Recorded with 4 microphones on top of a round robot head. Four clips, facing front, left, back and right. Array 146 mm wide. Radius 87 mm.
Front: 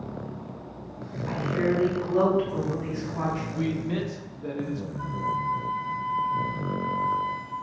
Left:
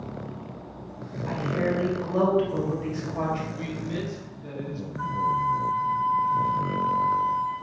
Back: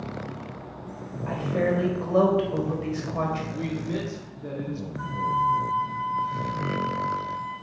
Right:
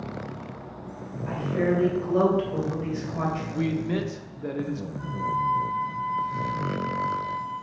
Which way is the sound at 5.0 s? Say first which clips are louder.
Left 3 dB, back 5 dB; 115° left.